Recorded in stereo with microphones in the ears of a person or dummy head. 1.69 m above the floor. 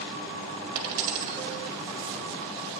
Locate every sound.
0.8 s a dropped coin: 35° right (ahead or behind), 2.5 m